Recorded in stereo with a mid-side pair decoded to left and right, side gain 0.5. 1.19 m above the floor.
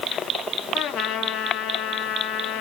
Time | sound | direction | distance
0.7 | a trumpet | 70° left | 2.5 m